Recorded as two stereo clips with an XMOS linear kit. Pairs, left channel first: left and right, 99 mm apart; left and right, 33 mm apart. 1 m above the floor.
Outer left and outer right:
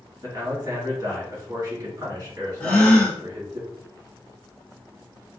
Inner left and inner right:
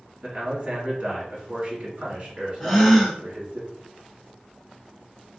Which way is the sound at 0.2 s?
40° right (ahead or behind).